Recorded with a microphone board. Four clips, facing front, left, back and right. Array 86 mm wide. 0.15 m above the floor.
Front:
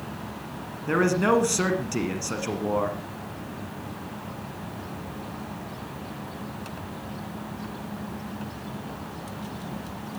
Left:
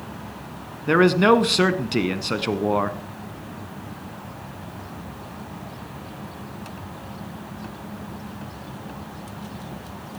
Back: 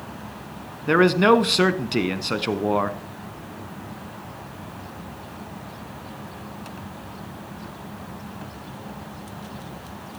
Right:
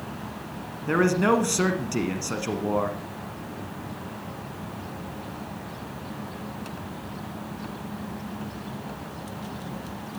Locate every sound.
0.9 s a man speaking: 140° left, 1.2 m